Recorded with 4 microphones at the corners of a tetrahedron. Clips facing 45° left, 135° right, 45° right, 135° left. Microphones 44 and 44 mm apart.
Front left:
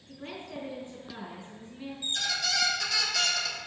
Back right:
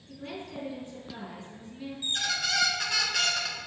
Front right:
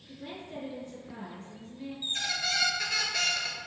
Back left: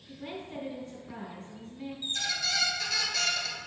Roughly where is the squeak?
Right.